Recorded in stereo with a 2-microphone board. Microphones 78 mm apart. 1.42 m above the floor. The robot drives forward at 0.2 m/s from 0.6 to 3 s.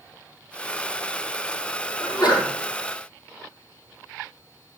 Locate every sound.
2.0 s a sneeze: 70° left (ahead or behind), 5 m